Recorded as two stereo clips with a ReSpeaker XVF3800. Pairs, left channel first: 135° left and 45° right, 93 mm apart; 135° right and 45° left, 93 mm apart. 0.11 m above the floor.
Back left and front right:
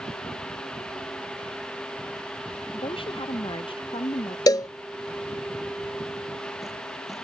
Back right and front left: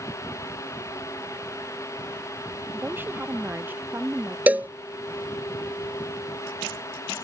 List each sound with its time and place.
2.7 s a woman speaking: 110° left; by 4.4 s 115° left
4.5 s a cowbell: 110° left